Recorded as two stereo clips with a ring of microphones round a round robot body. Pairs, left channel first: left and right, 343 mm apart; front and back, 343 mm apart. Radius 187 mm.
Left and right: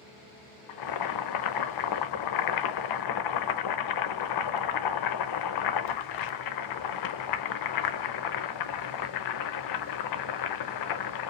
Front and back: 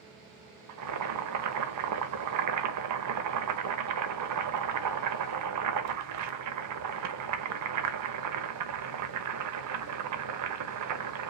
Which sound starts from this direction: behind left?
Boiling, at 0.7 s.